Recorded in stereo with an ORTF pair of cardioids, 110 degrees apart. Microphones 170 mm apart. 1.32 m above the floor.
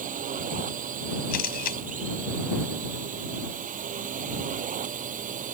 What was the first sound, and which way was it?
A drone, 50° right.